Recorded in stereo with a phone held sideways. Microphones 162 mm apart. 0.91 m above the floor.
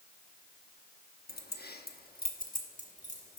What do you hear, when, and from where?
1.3 s keys jangling: 75° left (ahead or behind), 0.8 m; by 3.4 s 45° left (ahead or behind), 1.6 m